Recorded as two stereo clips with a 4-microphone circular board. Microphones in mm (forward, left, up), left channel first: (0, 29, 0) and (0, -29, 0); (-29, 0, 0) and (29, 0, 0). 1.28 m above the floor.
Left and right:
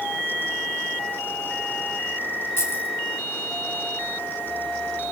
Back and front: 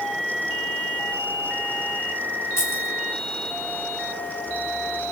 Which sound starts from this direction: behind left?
Keys jangling, at 2.6 s.